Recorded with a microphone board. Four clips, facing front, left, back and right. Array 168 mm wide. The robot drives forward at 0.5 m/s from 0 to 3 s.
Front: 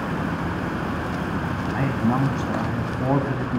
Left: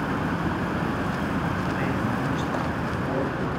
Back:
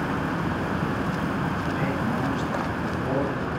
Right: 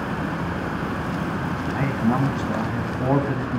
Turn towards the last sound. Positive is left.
turn(degrees=-45)